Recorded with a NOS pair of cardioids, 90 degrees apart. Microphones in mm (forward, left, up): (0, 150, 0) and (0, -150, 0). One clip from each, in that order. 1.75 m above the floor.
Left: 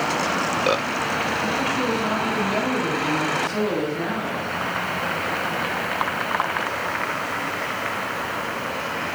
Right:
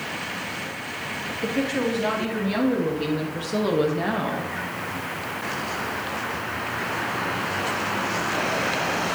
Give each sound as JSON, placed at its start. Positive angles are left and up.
{"t": 1.4, "sound": "a woman speaking", "azimuth_deg": -70, "distance_m": 3.5}